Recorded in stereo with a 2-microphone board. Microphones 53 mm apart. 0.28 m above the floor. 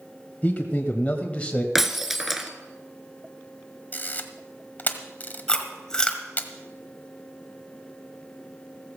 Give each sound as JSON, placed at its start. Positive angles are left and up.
{"t": 0.4, "sound": "a man speaking", "side_deg": 30, "distance_m": 1.6}
{"t": 1.8, "sound": "breaking glass", "side_deg": -5, "distance_m": 1.2}
{"t": 3.9, "sound": "a camera shutter", "side_deg": 35, "distance_m": 1.3}
{"t": 5.5, "sound": "chewing", "side_deg": 15, "distance_m": 1.8}